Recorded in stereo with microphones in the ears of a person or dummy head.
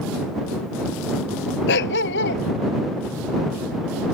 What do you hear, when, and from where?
1.7 s a dog barking: 65° left (ahead or behind)